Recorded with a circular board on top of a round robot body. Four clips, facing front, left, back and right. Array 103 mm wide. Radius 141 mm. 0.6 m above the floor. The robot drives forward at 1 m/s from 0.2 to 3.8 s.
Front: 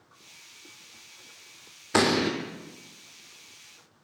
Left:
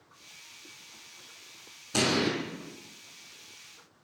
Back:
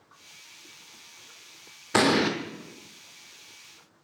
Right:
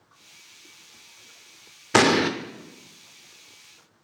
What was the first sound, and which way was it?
An explosion, 90° right.